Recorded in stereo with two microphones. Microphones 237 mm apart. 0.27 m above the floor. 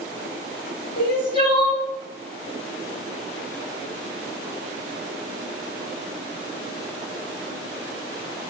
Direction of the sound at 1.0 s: 35° left (ahead or behind).